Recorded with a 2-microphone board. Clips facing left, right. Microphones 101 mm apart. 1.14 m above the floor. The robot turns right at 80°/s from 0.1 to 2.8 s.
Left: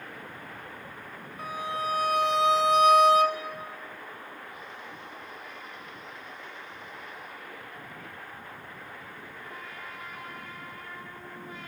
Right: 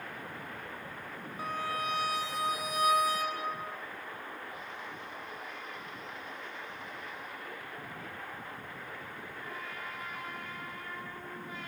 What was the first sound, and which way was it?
A violin, 5° right.